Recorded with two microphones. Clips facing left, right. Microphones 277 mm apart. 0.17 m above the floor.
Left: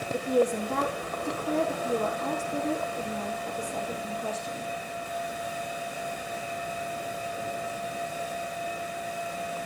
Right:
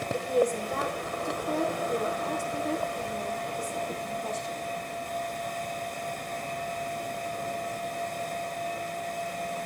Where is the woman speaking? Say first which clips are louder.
Left 1 dB; 65° left (ahead or behind), 8 m.